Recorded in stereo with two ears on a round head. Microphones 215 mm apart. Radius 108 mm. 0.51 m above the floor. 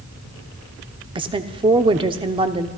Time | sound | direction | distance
1.1 | a woman speaking | 20° right (ahead or behind) | 0.8 m